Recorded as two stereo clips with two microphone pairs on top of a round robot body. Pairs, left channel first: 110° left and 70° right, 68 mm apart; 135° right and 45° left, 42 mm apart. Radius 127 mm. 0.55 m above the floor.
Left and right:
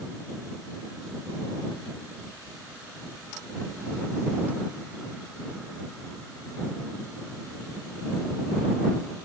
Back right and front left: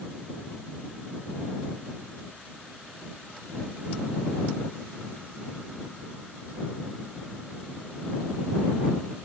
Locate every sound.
Only background noise.